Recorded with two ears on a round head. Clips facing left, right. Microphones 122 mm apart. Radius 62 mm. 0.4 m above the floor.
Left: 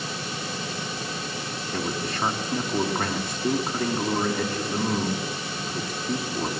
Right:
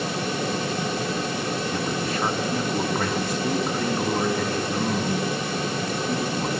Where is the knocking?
I don't hear knocking.